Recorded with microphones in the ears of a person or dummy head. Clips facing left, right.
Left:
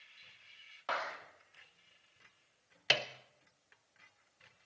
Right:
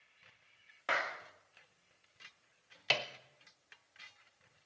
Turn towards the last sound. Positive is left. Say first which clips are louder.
# left 1 dB
turn(degrees=20)  # may be behind; listen again after turning